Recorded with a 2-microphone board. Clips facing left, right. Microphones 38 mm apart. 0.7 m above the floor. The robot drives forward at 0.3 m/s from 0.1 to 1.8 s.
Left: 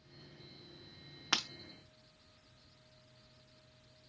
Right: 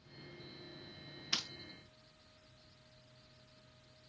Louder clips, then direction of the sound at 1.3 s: Left 5 dB; 70° left (ahead or behind).